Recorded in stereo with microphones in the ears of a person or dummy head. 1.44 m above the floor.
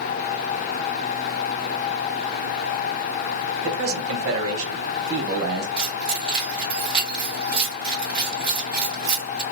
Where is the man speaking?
65° right (ahead or behind), 0.8 m; by 5.7 s 60° right (ahead or behind), 1.5 m.